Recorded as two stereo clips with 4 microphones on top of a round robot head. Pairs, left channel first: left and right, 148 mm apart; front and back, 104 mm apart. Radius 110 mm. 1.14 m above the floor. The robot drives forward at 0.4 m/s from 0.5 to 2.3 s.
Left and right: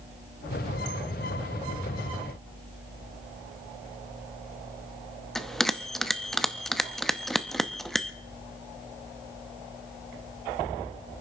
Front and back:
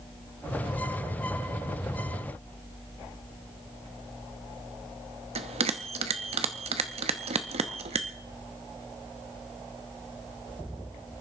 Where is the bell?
Straight behind, 0.7 m.